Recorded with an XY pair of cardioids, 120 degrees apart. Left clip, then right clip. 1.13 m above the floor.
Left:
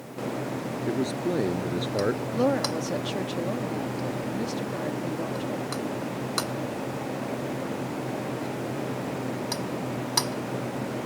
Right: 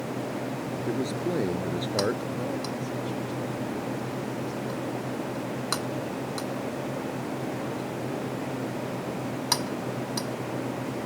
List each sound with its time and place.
0.9 s a man speaking: 5° left
2.3 s a woman speaking: 70° left